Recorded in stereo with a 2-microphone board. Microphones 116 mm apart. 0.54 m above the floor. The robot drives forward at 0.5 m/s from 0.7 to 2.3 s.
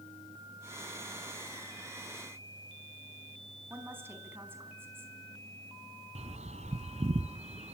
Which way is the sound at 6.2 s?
75° right (ahead or behind).